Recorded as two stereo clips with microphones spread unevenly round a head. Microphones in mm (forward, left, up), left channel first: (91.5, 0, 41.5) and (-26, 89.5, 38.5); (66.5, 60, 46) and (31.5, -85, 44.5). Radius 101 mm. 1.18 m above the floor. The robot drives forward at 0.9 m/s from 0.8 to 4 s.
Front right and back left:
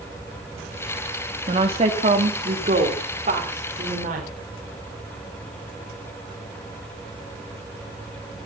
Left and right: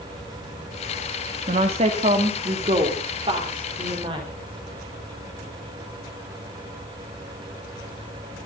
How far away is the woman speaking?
About 2.5 m.